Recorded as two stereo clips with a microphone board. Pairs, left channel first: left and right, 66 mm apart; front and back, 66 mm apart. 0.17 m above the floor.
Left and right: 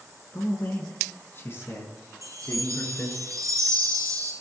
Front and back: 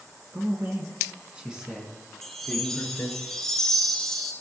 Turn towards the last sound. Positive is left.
turn(degrees=-85)